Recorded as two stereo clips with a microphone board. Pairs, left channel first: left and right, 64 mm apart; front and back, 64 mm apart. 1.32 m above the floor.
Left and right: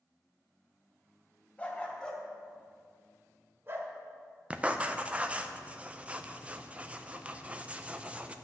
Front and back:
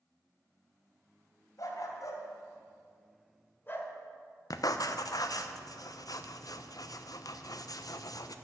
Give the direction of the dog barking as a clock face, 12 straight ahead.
11 o'clock.